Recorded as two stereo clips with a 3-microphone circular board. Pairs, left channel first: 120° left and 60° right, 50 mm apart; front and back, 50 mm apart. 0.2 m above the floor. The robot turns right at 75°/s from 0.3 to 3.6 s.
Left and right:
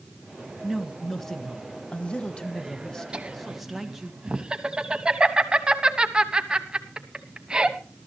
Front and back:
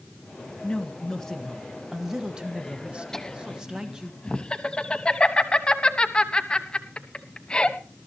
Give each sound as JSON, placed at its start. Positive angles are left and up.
{"t": 0.6, "sound": "a woman speaking", "azimuth_deg": 0, "distance_m": 1.3}
{"t": 3.1, "sound": "laughter", "azimuth_deg": -60, "distance_m": 1.1}